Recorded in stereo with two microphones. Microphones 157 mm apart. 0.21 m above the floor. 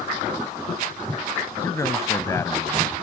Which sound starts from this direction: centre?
A man speaking, at 1.6 s.